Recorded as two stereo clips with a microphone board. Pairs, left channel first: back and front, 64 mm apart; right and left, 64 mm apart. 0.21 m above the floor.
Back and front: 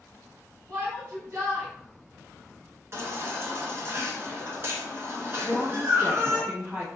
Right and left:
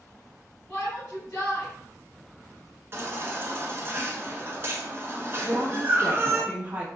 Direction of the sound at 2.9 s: 45° left.